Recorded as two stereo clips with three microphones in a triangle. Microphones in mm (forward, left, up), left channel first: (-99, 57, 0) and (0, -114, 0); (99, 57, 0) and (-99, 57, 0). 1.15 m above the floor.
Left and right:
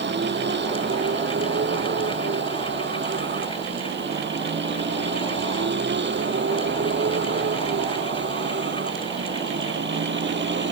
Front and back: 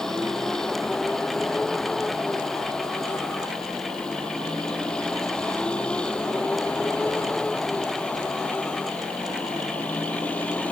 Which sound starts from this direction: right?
A vehicle, at 0.0 s.